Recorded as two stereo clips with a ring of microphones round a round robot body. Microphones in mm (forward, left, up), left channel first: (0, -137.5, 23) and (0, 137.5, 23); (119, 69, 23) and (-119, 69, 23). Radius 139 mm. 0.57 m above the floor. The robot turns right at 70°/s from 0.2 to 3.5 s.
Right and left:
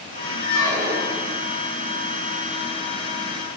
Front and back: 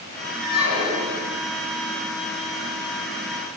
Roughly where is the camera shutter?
I don't hear a camera shutter.